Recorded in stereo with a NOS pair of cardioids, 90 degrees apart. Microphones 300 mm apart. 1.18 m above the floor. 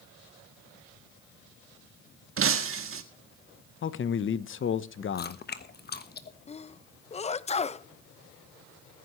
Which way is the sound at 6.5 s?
20° left.